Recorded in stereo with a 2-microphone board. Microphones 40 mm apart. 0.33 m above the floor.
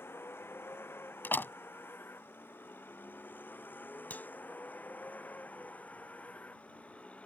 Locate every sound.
0.0 s a vehicle: 75° left (ahead or behind); by 7.2 s 35° left (ahead or behind)
1.2 s a door slam: 60° left (ahead or behind)
4.1 s a clap: 50° left (ahead or behind)